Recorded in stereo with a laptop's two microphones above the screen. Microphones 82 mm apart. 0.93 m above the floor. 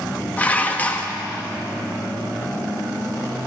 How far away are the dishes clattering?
About 0.5 m.